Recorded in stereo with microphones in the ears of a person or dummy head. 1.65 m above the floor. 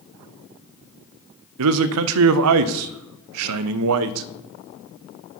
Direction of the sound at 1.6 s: 80° right.